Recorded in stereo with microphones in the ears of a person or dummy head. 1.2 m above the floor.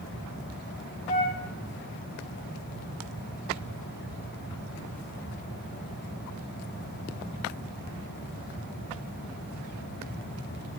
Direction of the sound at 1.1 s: 40° left (ahead or behind).